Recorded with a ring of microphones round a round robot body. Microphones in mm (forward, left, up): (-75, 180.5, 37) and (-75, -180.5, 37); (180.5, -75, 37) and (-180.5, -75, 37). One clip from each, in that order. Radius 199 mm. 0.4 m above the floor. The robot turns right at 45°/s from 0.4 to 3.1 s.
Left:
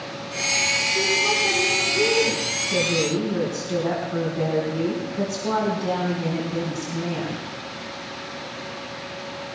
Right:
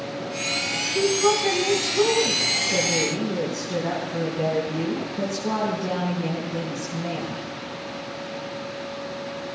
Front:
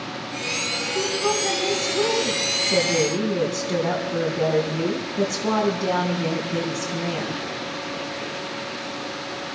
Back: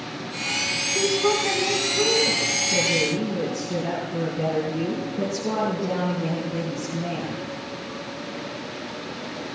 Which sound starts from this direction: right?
A woman speaking, at 0.9 s.